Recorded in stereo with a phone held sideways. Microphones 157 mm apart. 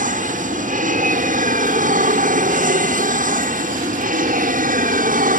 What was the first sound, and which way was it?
An aircraft, 55° right (ahead or behind).